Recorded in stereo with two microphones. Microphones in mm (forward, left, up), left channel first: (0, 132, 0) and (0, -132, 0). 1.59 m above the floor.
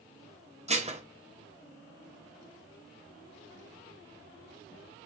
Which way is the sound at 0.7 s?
25° right (ahead or behind).